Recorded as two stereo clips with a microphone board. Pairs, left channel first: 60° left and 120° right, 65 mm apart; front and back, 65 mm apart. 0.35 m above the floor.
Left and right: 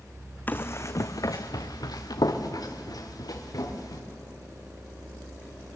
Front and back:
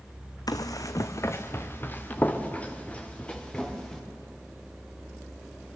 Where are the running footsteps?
Straight ahead, 1.1 m; by 4.0 s 75° left, 4 m.